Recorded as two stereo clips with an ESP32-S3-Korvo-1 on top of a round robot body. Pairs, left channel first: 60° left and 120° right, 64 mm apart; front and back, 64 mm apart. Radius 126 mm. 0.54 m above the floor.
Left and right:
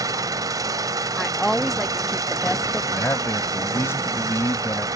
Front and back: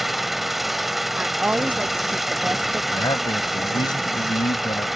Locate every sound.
0.0 s an engine running: 90° right
1.2 s a woman speaking: 150° left
2.9 s a man speaking: 5° left